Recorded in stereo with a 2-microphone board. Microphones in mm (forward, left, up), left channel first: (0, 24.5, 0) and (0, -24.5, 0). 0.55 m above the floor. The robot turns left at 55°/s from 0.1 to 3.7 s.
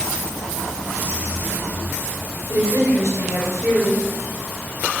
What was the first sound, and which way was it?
A woman speaking, 75° right.